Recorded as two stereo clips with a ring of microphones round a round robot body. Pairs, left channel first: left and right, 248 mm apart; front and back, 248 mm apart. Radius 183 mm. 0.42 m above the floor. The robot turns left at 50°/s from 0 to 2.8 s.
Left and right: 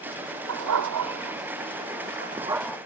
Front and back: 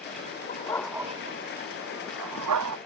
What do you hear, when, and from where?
0.5 s a dog barking: 70° right; by 2.8 s 175° left